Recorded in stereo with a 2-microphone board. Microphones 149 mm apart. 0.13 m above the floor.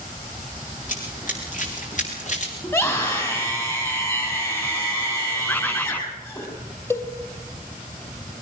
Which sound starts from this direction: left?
Running footsteps, at 0.9 s.